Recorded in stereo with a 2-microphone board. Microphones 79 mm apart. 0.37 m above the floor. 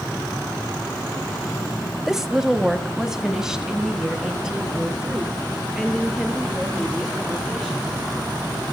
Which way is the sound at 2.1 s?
5° right (ahead or behind).